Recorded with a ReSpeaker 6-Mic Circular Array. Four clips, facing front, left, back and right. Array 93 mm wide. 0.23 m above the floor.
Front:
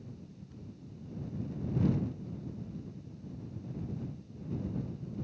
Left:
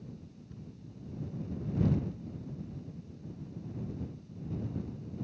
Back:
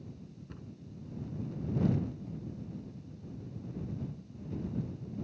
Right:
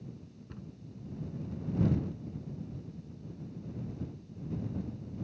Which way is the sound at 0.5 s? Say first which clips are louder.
Right 2 dB, back 2 dB; 135° right.